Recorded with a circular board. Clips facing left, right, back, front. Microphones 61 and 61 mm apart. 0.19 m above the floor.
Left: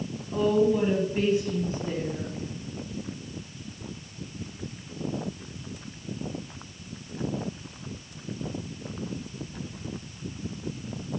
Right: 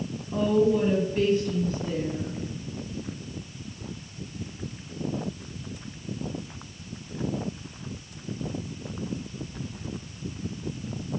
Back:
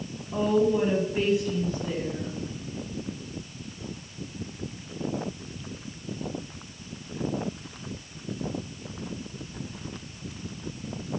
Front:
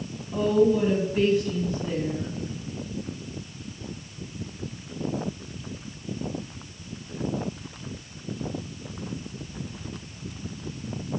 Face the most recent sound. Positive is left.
turn(degrees=80)